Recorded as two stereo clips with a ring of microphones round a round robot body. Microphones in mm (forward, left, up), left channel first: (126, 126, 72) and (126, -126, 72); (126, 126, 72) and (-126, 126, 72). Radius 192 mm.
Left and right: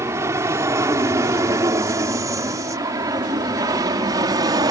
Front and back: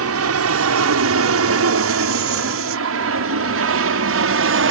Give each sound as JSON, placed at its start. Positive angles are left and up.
{"t": 0.0, "sound": "an aircraft", "azimuth_deg": -170}